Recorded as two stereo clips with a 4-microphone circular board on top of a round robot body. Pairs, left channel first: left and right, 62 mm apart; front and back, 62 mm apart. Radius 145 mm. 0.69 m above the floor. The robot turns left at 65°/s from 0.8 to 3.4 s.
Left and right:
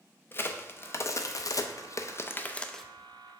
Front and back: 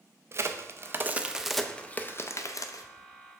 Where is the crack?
140° left, 0.5 m; by 2.8 s 5° left, 0.5 m.